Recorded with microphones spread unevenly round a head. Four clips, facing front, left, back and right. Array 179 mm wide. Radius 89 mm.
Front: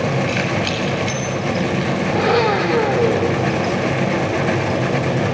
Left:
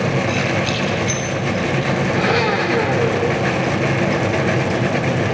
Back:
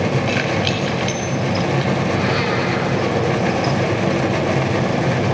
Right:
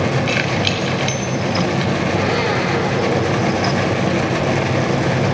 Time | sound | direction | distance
0.3 | keys jangling | 80° right | 7.5 m
2.1 | a blender | 10° left | 3.5 m